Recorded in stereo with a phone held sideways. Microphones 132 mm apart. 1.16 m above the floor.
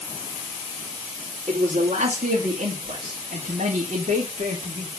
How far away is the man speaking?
About 2.5 m.